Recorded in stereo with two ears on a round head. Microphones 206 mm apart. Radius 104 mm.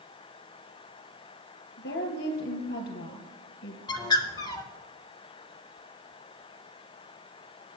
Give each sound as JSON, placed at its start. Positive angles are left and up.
{"t": 1.8, "sound": "a woman speaking", "side_deg": 60, "distance_m": 3.0}
{"t": 3.9, "sound": "a bird", "side_deg": 20, "distance_m": 0.9}